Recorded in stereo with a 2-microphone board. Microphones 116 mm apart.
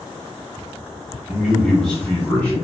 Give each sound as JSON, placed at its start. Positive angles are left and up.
{"t": 1.3, "sound": "a man speaking", "side_deg": -10, "distance_m": 0.8}